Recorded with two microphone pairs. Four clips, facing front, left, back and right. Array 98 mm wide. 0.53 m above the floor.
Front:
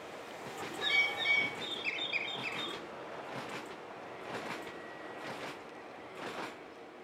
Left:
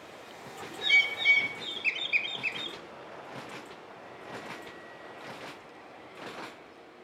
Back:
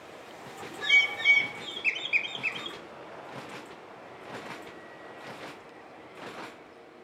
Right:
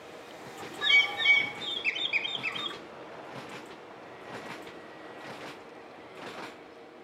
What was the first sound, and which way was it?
A bird, 95° right.